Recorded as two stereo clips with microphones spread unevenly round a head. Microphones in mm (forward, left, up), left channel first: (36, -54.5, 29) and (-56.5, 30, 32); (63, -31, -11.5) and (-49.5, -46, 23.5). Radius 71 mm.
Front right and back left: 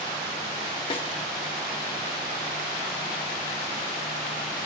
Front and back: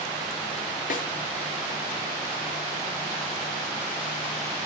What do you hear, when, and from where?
0.9 s a snare drum: 10° left, 1.4 m